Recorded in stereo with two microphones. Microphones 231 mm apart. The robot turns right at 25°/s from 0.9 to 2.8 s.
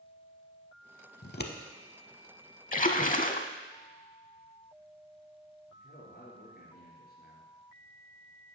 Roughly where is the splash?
Left.